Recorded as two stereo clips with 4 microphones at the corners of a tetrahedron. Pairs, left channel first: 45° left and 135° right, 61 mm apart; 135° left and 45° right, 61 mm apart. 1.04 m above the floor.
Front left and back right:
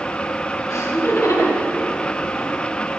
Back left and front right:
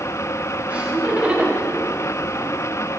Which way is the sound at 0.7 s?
25° left.